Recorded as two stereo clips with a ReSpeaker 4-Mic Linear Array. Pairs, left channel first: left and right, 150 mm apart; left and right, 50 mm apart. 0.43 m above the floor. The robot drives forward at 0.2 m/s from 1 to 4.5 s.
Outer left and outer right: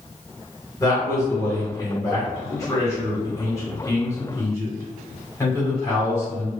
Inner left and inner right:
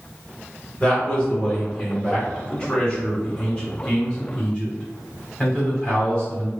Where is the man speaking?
20° left (ahead or behind), 1.4 m.